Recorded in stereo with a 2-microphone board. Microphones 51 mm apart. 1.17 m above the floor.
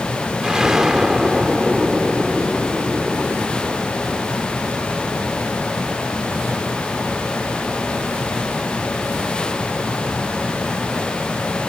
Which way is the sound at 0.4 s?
10° right (ahead or behind).